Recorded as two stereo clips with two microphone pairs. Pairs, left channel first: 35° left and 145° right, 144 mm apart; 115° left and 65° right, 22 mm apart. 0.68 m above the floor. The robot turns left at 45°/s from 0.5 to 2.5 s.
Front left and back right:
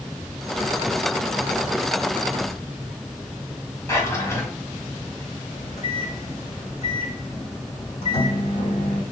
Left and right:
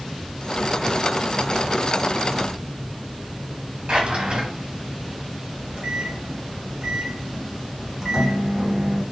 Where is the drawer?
35° right, 1.7 m.